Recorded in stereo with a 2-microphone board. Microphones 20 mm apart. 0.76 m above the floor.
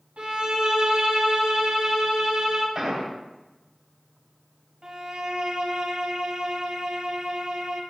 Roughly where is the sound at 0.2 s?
Right.